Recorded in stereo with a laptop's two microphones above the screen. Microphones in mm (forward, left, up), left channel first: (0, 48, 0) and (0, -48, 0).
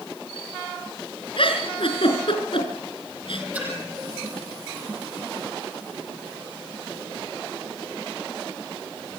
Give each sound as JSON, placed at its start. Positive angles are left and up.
{"t": 1.4, "sound": "a giggle", "side_deg": 60, "distance_m": 4.5}
{"t": 3.5, "sound": "a splash", "side_deg": -15, "distance_m": 8.5}